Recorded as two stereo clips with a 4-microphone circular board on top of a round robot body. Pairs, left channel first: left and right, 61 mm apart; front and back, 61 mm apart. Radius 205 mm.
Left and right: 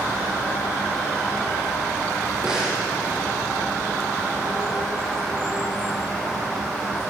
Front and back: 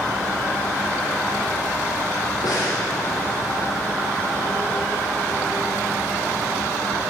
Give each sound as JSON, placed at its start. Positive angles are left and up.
{"t": 2.4, "sound": "breathing", "azimuth_deg": -10, "distance_m": 9.5}